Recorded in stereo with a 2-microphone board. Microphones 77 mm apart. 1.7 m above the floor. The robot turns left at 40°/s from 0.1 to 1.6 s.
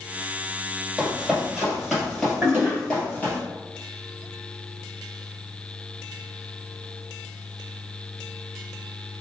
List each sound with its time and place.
1.0 s running footsteps: 5° right (ahead or behind), 1.9 m; by 3.4 s 20° left (ahead or behind), 1.8 m
2.4 s a toilet flushing: 30° right (ahead or behind), 1.2 m